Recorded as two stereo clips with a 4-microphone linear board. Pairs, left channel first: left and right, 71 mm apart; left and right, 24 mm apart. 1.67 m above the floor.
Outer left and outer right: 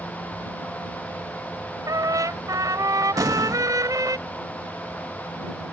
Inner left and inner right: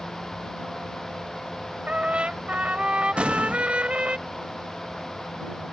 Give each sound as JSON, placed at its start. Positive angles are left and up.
{"t": 1.9, "sound": "a trumpet", "side_deg": -65}
{"t": 3.2, "sound": "an explosion", "side_deg": -70}